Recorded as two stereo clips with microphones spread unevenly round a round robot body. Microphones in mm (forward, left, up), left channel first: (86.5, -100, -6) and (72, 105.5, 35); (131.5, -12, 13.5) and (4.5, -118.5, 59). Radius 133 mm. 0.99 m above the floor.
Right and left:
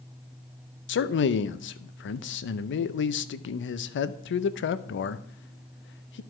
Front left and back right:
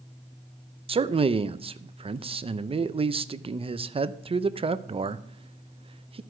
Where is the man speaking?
75° right, 0.6 m.